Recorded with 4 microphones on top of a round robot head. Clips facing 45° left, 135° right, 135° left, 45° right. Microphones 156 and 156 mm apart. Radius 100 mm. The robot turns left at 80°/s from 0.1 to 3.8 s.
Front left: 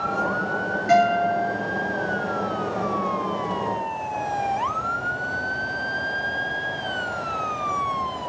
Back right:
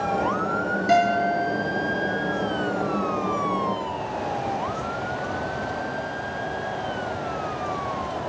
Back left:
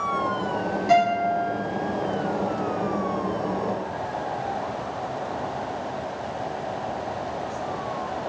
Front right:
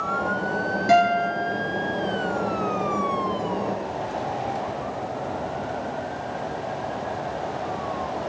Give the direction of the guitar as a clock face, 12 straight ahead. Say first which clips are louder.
Front left 2 dB, front right 1 dB; 3 o'clock.